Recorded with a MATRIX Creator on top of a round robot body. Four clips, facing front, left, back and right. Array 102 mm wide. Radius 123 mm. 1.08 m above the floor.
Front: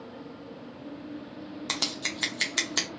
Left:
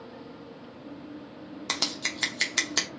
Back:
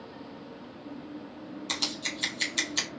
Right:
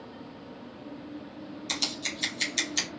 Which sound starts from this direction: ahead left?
Scissors, at 1.7 s.